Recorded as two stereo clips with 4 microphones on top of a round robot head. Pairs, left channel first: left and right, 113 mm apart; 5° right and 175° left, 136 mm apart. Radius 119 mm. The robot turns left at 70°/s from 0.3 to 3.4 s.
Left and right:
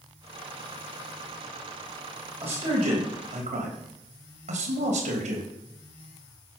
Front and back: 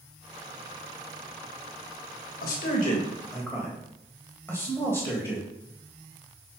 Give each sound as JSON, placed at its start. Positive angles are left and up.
{"t": 2.4, "sound": "a man speaking", "azimuth_deg": -10, "distance_m": 3.5}